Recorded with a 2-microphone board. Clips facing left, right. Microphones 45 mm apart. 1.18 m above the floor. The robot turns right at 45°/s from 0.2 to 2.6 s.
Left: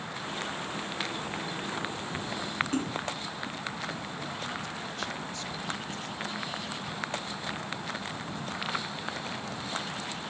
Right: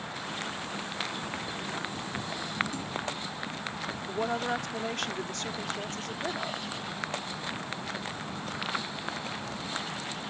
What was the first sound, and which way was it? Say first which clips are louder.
A splash: left 4 dB; 45° left (ahead or behind).